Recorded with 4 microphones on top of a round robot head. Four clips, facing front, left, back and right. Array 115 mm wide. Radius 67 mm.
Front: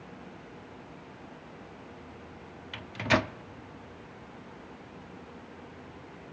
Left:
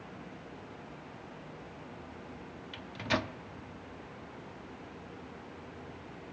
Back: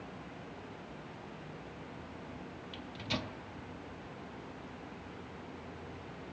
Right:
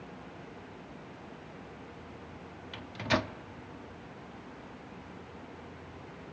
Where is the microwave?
10° right, 0.6 m.